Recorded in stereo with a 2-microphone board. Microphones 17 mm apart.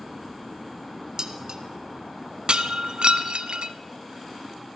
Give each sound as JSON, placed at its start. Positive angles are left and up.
{"t": 1.2, "sound": "dishes clattering", "side_deg": -45, "distance_m": 1.3}
{"t": 2.5, "sound": "breaking glass", "side_deg": -60, "distance_m": 0.8}